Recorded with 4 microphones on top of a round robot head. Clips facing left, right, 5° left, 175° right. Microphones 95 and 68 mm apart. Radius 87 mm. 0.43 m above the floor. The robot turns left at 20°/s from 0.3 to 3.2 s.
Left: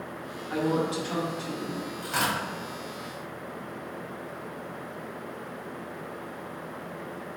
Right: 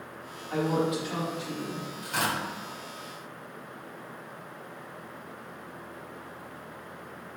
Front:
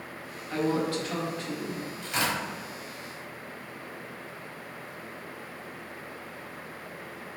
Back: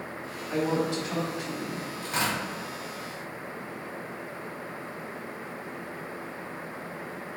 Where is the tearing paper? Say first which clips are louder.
Left 1 dB, even; 135° left, 1.9 m; by 2.4 s 125° left, 1.9 m.